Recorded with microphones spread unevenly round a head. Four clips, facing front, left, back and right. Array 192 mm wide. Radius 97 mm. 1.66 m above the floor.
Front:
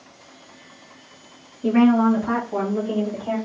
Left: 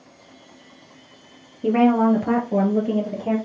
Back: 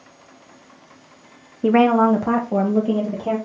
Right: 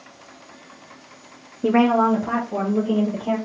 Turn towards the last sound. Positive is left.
turn(degrees=155)